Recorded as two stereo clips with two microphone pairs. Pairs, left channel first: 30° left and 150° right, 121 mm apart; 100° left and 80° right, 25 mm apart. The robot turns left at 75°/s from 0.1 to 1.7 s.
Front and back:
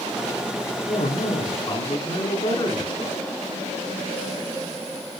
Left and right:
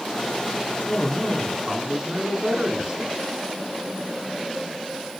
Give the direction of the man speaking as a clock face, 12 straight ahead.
10 o'clock.